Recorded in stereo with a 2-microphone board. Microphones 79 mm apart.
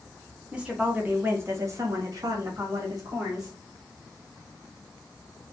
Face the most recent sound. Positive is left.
turn(degrees=-50)  # may be behind; listen again after turning